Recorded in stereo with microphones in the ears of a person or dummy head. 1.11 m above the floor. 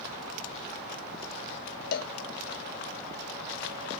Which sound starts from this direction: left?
A cowbell, at 1.9 s.